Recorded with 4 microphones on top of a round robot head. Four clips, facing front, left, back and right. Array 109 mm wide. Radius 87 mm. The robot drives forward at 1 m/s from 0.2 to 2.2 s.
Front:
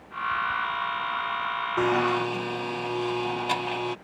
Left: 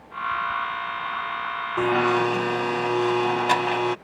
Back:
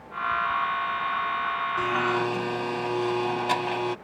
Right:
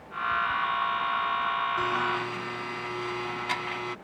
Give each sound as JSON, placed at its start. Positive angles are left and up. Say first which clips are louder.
{"t": 1.8, "sound": "a blender", "louder": "left 7 dB, front 3 dB", "azimuth_deg": 45}